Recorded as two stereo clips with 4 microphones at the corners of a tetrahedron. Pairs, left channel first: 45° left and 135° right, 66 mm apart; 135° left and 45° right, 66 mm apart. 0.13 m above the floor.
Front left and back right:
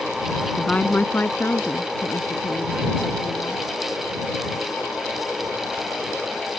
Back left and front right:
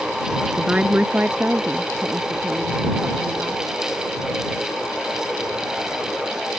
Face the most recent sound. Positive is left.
turn(degrees=10)